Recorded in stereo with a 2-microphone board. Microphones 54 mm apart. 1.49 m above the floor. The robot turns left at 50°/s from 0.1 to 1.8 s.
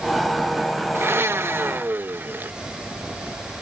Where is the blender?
75° right; by 2.5 s 115° right.